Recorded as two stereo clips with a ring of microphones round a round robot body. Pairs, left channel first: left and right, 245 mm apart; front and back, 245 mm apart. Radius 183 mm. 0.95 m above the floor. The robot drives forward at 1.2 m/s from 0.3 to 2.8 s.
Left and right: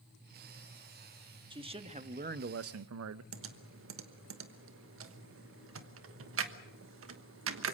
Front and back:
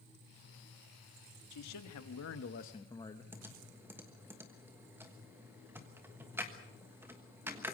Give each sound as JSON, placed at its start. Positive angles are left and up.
{"t": 1.5, "sound": "a man speaking", "azimuth_deg": -20, "distance_m": 1.8}
{"t": 3.3, "sound": "typing on a keyboard", "azimuth_deg": -100, "distance_m": 1.3}